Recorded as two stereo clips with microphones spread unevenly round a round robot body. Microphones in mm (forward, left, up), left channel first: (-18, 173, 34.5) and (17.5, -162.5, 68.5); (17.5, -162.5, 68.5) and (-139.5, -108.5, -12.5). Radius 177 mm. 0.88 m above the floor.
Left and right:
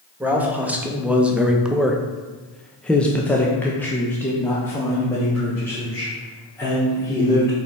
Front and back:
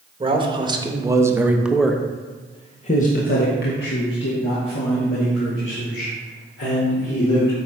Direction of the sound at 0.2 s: 170° right.